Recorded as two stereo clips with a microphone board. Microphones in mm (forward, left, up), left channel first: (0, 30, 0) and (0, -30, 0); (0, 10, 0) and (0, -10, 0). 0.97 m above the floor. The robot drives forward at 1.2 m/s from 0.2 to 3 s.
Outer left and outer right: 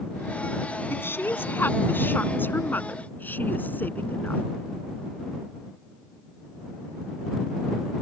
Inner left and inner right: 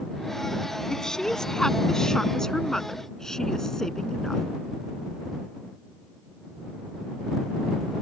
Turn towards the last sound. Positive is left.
turn(degrees=30)  # may be behind; listen again after turning